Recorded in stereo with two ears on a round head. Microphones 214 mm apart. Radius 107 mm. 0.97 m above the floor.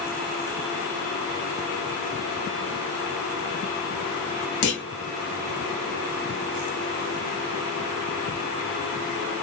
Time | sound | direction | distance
4.6 | a clunk | 75° left (ahead or behind) | 0.7 m